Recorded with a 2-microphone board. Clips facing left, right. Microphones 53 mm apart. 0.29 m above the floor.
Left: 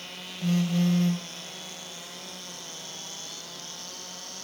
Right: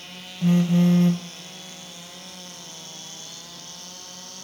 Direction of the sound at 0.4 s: 20° right (ahead or behind).